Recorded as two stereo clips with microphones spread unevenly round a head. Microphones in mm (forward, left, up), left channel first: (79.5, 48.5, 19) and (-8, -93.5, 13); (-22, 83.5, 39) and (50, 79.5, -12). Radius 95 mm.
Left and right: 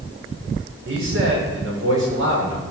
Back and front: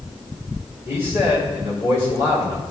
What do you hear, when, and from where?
0.9 s a man speaking: 145° right, 6 m